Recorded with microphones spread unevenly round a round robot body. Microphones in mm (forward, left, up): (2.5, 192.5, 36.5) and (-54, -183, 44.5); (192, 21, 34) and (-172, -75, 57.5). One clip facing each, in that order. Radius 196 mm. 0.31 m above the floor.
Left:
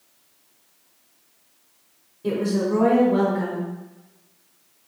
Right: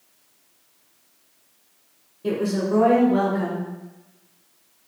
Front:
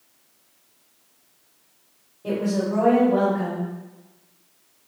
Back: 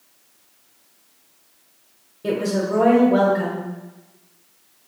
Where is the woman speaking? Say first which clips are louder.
Left 1 dB, back 2 dB; 170° left, 1.5 m.